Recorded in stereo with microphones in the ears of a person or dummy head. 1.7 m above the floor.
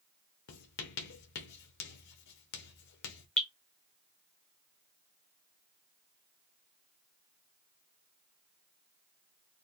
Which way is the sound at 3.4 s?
5° left (ahead or behind).